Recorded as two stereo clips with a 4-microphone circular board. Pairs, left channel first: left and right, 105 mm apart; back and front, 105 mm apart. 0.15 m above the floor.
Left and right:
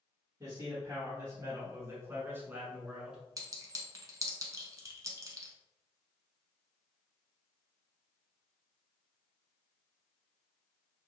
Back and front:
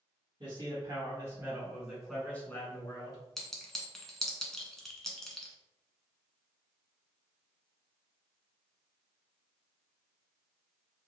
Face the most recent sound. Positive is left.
turn(degrees=-95)